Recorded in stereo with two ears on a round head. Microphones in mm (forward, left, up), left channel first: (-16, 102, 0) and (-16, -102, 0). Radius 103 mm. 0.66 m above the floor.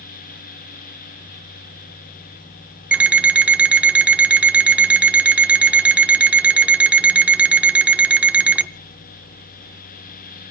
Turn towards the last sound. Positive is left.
turn(degrees=-5)  # may be behind; listen again after turning